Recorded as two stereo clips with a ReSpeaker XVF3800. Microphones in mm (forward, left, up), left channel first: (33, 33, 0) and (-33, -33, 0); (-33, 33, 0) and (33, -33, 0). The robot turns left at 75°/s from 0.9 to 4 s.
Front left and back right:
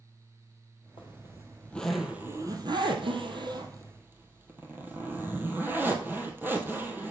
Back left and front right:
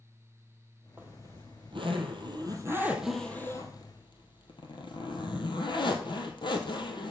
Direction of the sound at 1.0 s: 25° left.